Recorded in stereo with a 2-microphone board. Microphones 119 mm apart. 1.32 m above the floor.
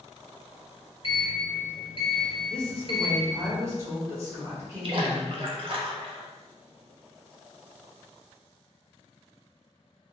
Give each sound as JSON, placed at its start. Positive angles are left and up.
{"t": 1.0, "sound": "a sliding door", "side_deg": 45, "distance_m": 1.6}
{"t": 2.5, "sound": "a woman speaking", "side_deg": -20, "distance_m": 1.4}
{"t": 4.8, "sound": "a splash", "side_deg": -45, "distance_m": 0.6}